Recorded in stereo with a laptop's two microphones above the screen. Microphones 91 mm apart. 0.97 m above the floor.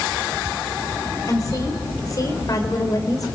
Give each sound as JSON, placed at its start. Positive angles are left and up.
{"t": 1.3, "sound": "a woman speaking", "side_deg": 40, "distance_m": 4.5}